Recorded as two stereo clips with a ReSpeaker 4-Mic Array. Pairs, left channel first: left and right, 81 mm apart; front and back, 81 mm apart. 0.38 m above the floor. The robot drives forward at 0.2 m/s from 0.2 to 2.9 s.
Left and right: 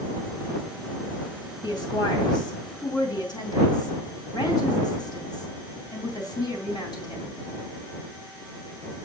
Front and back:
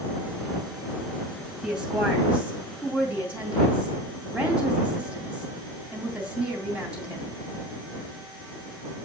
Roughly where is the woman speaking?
Left.